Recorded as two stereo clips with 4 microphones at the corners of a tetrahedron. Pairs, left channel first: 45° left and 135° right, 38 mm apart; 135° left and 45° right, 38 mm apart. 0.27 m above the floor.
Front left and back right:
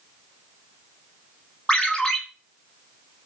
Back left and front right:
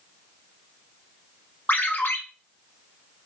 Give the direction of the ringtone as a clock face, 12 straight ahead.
8 o'clock.